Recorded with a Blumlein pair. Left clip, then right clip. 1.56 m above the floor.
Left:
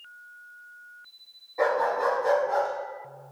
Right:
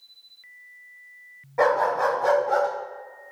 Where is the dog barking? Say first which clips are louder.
Right 3 dB; 35° right, 4.5 m; by 2.7 s 50° right, 3.5 m.